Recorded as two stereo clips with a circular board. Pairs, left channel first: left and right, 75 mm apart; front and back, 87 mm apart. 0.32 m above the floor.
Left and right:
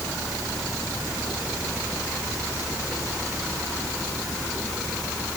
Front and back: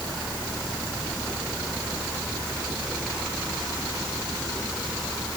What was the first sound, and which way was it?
Only background noise.